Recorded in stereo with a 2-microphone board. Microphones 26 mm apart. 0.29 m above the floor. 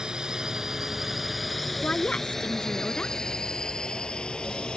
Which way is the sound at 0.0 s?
30° right (ahead or behind).